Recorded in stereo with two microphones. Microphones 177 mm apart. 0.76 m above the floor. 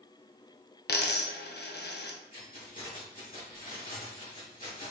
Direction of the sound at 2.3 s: 50° left (ahead or behind).